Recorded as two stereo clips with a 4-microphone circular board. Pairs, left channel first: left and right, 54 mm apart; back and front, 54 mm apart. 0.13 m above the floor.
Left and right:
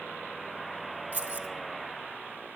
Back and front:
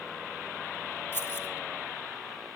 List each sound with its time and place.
1.1 s keys jangling: 135° right, 1.6 m